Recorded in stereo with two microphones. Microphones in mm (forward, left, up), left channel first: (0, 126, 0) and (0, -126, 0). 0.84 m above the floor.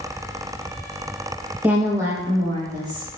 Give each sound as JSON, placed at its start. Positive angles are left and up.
{"t": 1.6, "sound": "a woman speaking", "side_deg": -5, "distance_m": 0.5}